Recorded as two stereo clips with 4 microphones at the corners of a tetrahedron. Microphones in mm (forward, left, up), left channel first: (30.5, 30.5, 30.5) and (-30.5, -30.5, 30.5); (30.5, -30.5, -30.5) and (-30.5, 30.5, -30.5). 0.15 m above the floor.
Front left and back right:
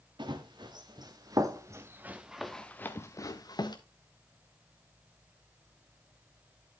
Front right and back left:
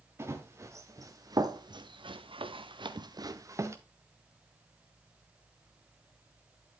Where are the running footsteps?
165° right, 2 m; by 3.8 s 80° left, 1.4 m.